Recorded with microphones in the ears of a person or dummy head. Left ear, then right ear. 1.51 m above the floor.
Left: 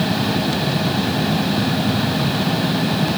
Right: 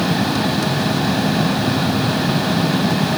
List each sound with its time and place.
Only background noise.